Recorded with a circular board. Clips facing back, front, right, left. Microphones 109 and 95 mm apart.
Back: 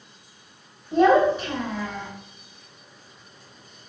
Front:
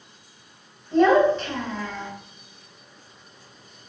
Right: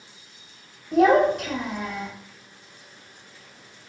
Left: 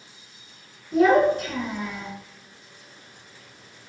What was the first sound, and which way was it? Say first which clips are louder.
A child speaking: even, even; 100° right.